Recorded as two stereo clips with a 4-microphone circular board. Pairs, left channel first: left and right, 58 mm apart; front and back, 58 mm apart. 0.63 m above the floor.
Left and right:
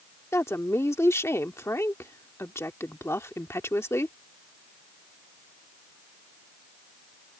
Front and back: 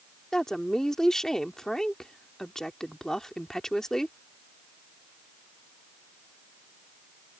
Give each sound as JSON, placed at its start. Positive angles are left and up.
{"t": 0.3, "sound": "a woman speaking", "azimuth_deg": 80}